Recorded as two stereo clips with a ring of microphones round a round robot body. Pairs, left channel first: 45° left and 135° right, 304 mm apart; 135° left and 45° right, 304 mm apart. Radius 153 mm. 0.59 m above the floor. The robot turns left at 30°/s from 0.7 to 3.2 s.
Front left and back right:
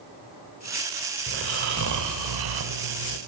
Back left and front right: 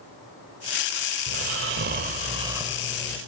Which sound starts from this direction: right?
Snoring, at 1.3 s.